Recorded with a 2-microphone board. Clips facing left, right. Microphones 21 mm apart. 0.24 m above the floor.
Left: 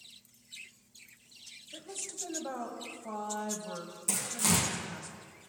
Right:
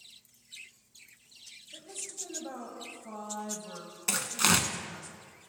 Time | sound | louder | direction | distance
1.7 | a woman speaking | left 1 dB | 20° left (ahead or behind) | 1.0 m
4.1 | tearing paper | right 4 dB | 60° right (ahead or behind) | 0.7 m